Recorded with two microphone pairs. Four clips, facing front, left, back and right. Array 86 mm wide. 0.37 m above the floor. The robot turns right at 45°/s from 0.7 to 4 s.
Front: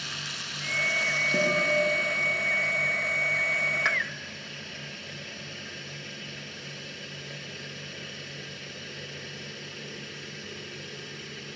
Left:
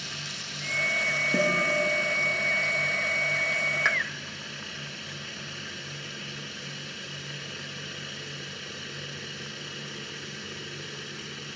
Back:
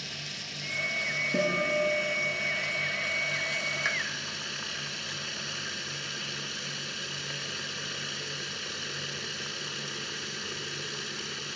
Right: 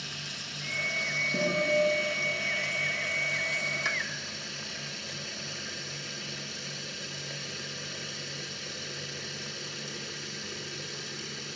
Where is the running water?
20° left, 2.5 m; by 11.6 s 165° left, 2.5 m.